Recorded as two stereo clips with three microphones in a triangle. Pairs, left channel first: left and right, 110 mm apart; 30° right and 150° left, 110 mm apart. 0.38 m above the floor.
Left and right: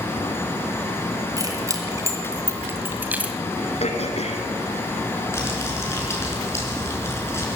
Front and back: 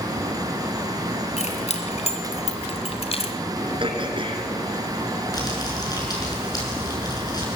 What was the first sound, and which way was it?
Keys jangling, 30° right.